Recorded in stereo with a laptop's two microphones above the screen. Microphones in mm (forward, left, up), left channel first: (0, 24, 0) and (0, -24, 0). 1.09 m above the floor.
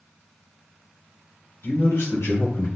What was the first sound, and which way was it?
A man speaking, 70° left (ahead or behind).